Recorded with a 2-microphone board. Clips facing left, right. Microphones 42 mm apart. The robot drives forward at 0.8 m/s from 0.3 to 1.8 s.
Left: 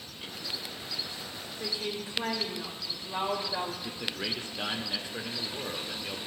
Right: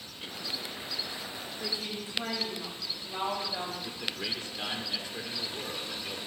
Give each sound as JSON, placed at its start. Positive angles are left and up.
{"t": 1.6, "sound": "a woman speaking", "side_deg": 40, "distance_m": 2.5}
{"t": 3.8, "sound": "a man speaking", "side_deg": 25, "distance_m": 0.7}